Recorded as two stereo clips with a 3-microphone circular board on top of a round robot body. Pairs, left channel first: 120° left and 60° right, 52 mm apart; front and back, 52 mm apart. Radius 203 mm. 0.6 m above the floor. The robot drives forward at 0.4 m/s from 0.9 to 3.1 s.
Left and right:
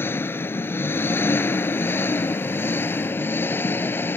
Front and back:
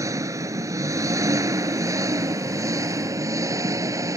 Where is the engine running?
165° left; by 4.2 s 170° left.